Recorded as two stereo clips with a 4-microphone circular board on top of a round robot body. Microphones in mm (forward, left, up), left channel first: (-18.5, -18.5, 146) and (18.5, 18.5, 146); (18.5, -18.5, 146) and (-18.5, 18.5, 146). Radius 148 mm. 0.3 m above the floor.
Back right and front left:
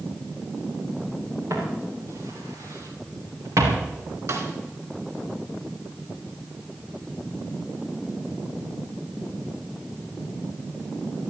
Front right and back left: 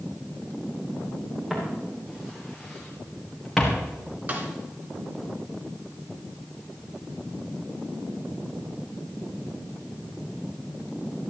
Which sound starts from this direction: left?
A snare drum, at 4.3 s.